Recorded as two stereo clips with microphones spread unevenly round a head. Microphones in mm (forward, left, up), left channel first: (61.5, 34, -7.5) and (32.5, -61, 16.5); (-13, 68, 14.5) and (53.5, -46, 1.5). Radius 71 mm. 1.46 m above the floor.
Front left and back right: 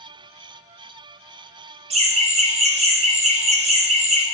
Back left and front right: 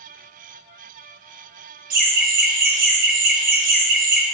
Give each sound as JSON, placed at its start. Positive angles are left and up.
{"t": 1.9, "sound": "laughter", "azimuth_deg": -95, "distance_m": 0.6}